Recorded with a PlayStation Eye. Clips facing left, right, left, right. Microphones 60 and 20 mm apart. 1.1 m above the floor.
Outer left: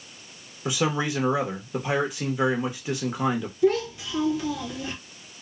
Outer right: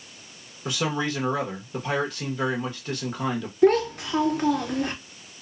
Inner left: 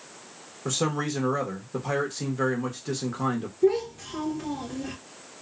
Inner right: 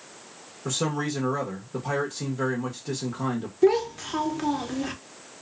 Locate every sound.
0.7 s a man speaking: 10° left (ahead or behind), 0.7 m
3.6 s a child speaking: 50° right (ahead or behind), 0.7 m